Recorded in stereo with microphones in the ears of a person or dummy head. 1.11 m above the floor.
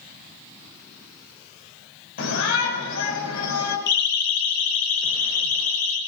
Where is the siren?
50° left (ahead or behind), 3 m; by 6.0 s 85° left, 5 m.